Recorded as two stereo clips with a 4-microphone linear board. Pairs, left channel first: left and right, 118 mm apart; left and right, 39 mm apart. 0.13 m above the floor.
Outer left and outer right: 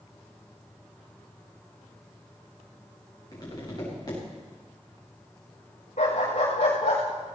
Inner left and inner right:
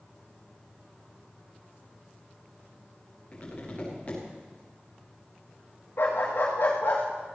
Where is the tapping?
35° left (ahead or behind), 6.5 m.